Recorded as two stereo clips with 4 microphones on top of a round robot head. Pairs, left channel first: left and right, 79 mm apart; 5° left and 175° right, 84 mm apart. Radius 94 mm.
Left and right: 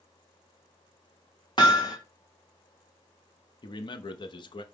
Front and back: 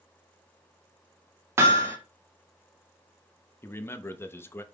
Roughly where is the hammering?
Behind left.